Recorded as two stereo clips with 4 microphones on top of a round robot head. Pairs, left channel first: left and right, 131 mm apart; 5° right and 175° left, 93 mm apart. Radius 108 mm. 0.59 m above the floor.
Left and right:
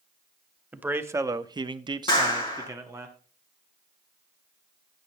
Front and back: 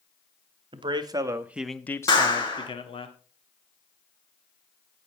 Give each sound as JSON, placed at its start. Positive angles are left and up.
{"t": 0.7, "sound": "a man speaking", "azimuth_deg": -165, "distance_m": 1.1}
{"t": 2.1, "sound": "a clap", "azimuth_deg": 35, "distance_m": 5.0}